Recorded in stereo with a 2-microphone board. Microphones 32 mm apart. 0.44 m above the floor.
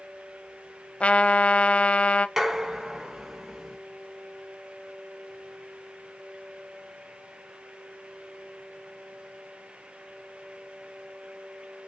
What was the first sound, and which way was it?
A trumpet, 40° left (ahead or behind).